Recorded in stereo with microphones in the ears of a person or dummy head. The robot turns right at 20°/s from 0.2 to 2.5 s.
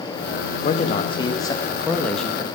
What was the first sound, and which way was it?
A man speaking, 150° left.